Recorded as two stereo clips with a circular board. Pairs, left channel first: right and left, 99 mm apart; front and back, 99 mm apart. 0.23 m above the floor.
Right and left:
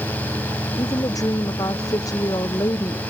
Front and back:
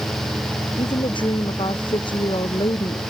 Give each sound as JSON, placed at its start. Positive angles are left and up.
{"t": 0.8, "sound": "a woman speaking", "azimuth_deg": -40}